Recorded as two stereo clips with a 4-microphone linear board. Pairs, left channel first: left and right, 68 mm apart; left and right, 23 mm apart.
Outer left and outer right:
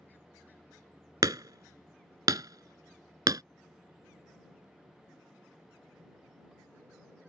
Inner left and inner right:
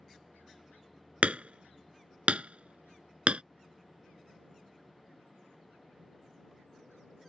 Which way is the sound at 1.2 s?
65° right (ahead or behind).